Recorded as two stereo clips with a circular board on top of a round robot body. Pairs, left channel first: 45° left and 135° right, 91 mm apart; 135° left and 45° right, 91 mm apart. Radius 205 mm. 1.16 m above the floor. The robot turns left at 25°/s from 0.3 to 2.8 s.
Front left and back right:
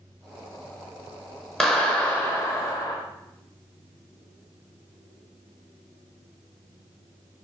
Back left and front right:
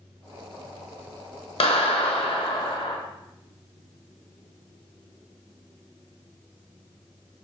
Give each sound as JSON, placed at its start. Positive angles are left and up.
{"t": 1.6, "sound": "a clap", "azimuth_deg": 130, "distance_m": 0.9}